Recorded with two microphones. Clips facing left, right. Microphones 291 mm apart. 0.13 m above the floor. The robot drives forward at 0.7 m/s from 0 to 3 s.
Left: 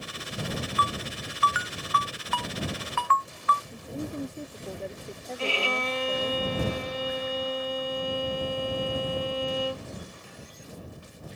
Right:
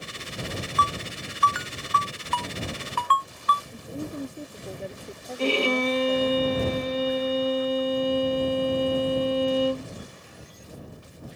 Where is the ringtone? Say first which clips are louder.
Right 1 dB; 55° right (ahead or behind); by 3.6 s 40° right (ahead or behind).